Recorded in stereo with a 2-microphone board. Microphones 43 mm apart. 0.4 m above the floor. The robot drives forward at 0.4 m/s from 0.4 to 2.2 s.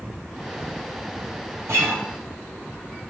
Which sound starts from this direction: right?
A guitar, at 1.7 s.